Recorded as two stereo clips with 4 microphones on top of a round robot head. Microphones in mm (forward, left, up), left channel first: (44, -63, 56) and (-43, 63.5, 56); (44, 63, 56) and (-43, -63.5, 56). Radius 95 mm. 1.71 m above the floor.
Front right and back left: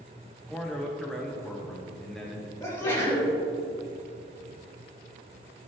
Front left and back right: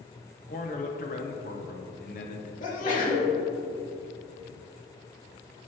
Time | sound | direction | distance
0.5 | a man speaking | 35° left | 0.8 m
2.6 | a sneeze | 15° left | 2.5 m